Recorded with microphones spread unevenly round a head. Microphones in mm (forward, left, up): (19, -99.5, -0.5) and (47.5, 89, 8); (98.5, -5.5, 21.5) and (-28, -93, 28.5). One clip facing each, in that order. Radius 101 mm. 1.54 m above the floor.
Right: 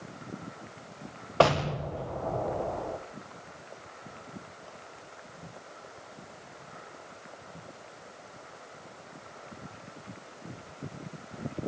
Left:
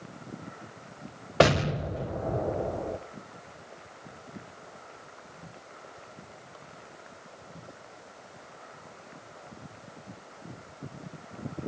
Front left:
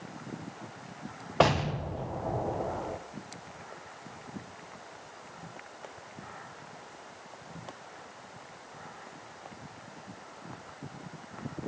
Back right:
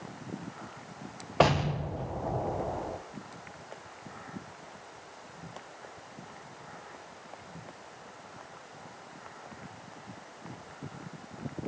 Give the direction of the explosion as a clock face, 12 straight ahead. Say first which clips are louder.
Left 2 dB, even; 8 o'clock.